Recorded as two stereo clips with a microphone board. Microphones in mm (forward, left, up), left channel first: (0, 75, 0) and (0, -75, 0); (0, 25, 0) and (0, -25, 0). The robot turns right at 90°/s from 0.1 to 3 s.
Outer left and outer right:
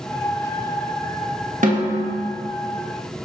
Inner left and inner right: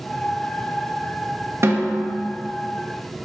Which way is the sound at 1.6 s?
110° right.